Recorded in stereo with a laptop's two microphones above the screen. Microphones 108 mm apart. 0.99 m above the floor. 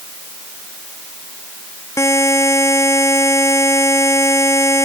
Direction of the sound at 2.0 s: 30° left (ahead or behind).